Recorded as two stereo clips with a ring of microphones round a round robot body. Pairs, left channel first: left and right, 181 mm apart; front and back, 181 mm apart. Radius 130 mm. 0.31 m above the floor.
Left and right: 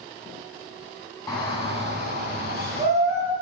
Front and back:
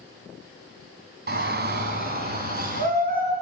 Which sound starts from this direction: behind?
A shout, at 1.3 s.